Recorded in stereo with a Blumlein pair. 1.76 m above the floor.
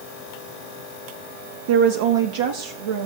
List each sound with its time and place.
1.7 s a woman speaking: 50° right, 0.7 m; by 3.1 s 60° right, 1.4 m